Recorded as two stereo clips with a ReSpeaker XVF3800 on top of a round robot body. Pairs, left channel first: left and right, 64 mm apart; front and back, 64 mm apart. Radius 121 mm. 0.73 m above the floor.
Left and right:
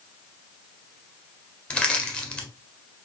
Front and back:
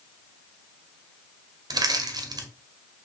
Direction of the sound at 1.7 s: 165° left.